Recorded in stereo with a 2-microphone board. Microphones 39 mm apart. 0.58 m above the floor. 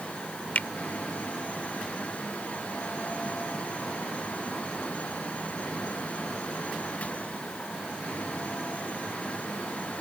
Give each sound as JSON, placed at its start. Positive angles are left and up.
{"t": 0.6, "sound": "a finger snap", "side_deg": 50}